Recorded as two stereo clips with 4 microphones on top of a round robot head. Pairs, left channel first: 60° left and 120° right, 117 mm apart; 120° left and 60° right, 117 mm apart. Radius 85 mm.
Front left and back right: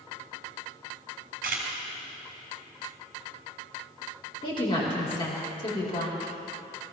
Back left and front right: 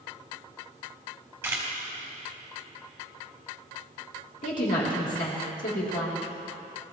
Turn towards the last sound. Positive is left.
turn(degrees=110)